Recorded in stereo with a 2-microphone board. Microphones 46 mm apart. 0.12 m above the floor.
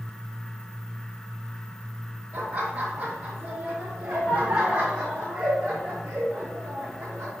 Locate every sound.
2.3 s laughter: 30° right (ahead or behind), 3.5 m; by 7.4 s 20° right (ahead or behind), 6.5 m